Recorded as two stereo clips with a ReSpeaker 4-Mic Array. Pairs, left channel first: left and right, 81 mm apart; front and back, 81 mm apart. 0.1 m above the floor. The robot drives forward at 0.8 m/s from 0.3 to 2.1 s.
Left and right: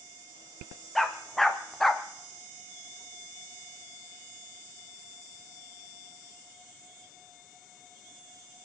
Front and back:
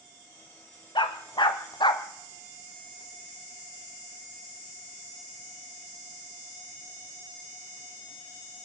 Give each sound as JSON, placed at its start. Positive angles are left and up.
{"t": 0.9, "sound": "a dog barking", "azimuth_deg": 0, "distance_m": 2.0}